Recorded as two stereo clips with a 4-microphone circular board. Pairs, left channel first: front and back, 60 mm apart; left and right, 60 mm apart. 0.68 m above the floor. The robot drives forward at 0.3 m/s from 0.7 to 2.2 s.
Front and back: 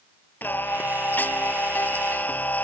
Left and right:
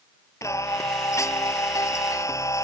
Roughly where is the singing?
Ahead left.